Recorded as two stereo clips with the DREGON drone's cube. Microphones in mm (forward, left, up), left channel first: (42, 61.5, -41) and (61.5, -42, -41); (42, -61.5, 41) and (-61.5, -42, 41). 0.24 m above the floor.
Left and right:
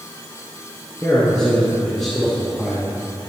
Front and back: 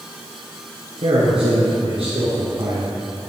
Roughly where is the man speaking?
Behind.